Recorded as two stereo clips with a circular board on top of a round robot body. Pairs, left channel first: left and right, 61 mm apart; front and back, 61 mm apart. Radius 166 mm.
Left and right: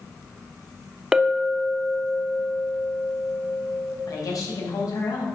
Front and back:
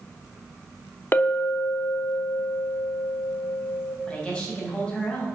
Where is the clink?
15° right, 0.9 m.